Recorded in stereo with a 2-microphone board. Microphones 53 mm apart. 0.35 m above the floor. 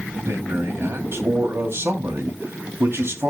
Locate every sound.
0.3 s a man speaking: 50° right (ahead or behind), 3 m